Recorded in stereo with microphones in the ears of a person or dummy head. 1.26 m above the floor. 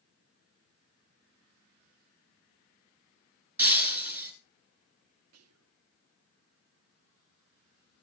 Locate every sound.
3.6 s breaking glass: 10° right (ahead or behind), 4 m
5.3 s whispering: 85° right, 0.6 m